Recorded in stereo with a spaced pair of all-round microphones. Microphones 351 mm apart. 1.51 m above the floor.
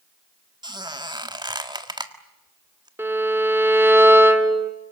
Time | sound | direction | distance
0.6 | a squeak | 10° right (ahead or behind) | 1.6 m
3.0 | a violin | 5° right (ahead or behind) | 2 m